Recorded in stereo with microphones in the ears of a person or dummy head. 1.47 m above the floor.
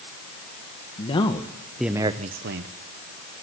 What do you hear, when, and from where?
1.0 s a man speaking: 30° left (ahead or behind), 1.8 m; by 2.7 s 70° right (ahead or behind), 1.2 m